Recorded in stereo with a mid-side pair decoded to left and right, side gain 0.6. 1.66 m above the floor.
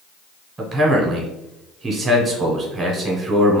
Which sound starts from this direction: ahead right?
A man speaking, at 0.6 s.